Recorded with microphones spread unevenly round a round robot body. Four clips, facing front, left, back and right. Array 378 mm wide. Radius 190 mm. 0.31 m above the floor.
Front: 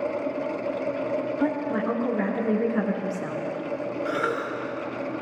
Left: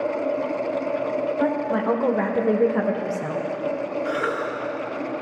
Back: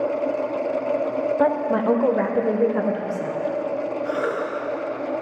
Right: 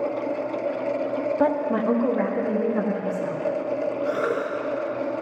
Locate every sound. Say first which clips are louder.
1.4 s a woman speaking: right 2 dB, back 7 dB; 135° right, 0.9 m; by 3.4 s 90° left, 1.3 m
4.0 s a cough: even, even; 15° left, 2 m